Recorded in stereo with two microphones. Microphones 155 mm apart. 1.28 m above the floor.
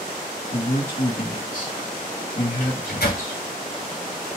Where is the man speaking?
55° left (ahead or behind), 2.0 m.